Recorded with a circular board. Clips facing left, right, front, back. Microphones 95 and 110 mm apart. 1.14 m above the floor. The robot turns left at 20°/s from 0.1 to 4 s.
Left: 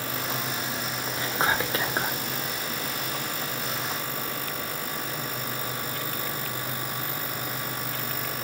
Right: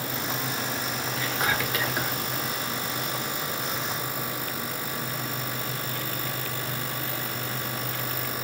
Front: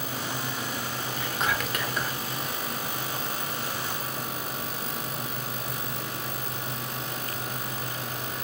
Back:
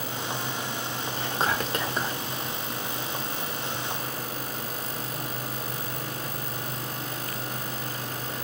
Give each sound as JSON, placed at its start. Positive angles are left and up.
{"t": 1.2, "sound": "whispering", "azimuth_deg": 145, "distance_m": 0.7}